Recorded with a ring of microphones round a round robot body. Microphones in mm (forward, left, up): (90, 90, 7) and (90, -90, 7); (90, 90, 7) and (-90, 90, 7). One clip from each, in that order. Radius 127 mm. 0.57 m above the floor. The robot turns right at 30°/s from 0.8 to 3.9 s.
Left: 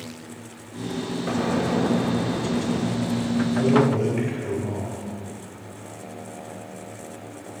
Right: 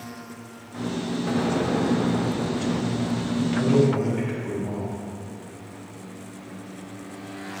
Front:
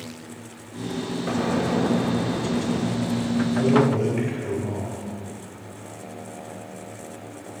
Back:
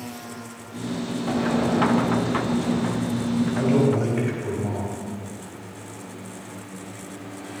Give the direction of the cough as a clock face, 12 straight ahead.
I don't hear a cough.